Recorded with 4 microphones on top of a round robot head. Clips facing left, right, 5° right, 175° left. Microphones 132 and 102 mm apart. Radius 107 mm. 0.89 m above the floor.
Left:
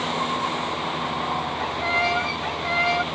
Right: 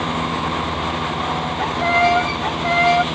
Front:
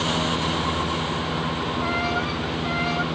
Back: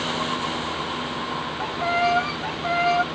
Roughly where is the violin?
Behind right.